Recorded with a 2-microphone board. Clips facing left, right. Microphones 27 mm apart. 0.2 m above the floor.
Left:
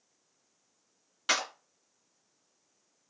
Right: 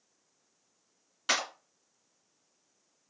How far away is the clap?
About 2.5 m.